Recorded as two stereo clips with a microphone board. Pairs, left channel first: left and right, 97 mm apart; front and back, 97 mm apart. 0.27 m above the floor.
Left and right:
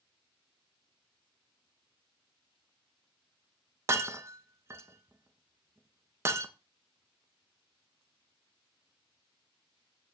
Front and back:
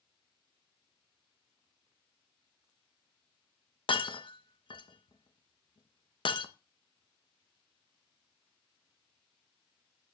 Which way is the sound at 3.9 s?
30° right.